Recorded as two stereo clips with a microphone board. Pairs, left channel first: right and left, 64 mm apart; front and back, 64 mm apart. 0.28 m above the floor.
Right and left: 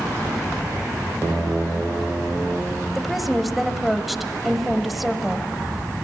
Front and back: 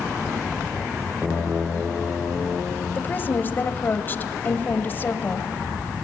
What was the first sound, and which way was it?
A woman speaking, 5° left.